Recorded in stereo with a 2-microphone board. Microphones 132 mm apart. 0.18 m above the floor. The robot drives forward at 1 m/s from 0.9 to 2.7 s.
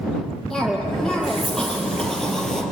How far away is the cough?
About 7 m.